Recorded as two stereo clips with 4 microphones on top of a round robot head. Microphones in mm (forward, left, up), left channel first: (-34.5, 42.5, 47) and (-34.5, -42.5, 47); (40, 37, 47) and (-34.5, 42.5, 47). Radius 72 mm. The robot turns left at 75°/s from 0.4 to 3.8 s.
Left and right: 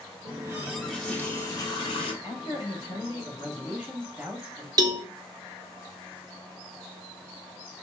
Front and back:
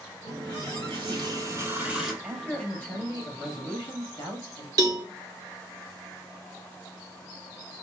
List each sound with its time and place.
0.2 s a running tap: 140° right, 1.9 m; by 2.1 s 90° left, 1.9 m
2.2 s a man speaking: 105° left, 1.9 m; by 4.7 s 15° right, 1.9 m
4.8 s a cowbell: 135° right, 0.7 m